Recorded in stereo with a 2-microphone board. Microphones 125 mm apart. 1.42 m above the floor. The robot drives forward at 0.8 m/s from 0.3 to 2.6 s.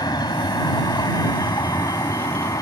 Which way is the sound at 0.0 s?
35° left (ahead or behind).